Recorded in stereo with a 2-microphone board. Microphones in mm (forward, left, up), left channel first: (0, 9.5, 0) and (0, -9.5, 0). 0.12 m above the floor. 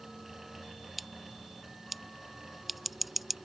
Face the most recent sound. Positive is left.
turn(degrees=-5)  # may be behind; listen again after turning